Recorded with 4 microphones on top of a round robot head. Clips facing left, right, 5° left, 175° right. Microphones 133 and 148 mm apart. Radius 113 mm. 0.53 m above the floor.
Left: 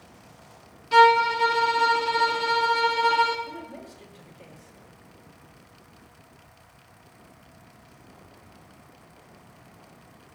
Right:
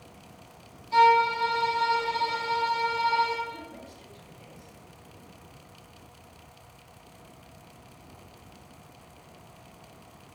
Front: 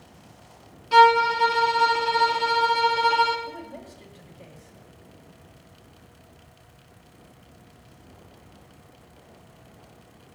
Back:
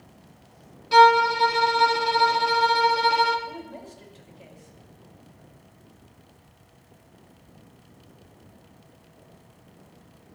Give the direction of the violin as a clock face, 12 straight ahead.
9 o'clock.